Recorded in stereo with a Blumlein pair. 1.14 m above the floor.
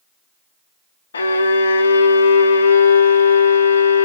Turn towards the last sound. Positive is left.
turn(degrees=70)